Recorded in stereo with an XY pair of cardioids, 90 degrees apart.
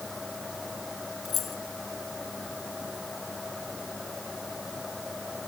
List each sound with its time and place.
0.0 s a fan: 25° left
1.2 s keys jangling: 65° left